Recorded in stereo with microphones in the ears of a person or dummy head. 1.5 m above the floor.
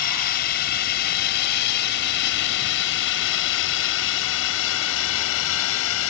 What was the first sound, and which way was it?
A drone, 45° left (ahead or behind).